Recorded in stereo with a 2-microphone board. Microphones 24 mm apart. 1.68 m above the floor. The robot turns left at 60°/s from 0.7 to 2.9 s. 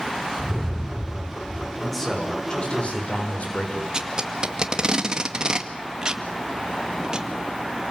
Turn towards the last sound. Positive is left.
turn(degrees=-30)  # may be behind; listen again after turning